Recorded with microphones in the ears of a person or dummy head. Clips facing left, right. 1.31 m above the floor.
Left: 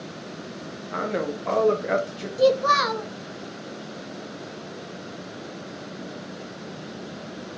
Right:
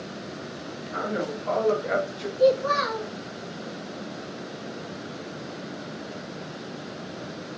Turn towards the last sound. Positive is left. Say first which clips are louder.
# left 1 dB
turn(degrees=75)  # may be behind; listen again after turning